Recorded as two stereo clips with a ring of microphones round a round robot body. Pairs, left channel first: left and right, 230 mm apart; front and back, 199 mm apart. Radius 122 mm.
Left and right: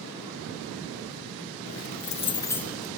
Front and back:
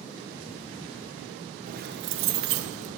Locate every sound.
1.7 s keys jangling: 125° left, 0.5 m; by 2.9 s straight behind, 0.8 m